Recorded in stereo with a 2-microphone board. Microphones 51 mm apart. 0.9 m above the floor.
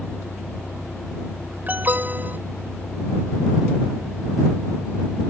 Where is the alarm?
35° right (ahead or behind).